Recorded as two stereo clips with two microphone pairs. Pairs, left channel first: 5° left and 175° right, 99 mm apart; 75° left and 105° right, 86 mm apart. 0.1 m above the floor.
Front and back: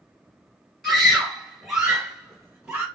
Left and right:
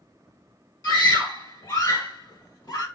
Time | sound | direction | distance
0.8 | a scream | 90° left | 2.5 m